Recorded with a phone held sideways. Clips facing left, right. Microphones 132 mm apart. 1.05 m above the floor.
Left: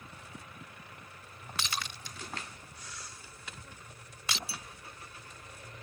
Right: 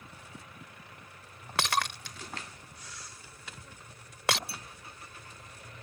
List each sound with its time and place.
1.6 s breaking glass: 75° right (ahead or behind)
4.5 s a clink: 55° right (ahead or behind)